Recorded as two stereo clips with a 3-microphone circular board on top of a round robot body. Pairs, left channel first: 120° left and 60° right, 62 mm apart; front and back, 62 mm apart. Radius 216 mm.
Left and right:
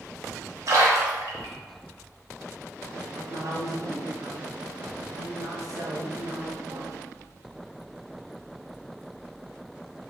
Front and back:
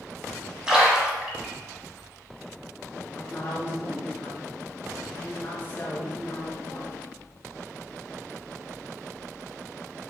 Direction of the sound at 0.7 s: 100° right.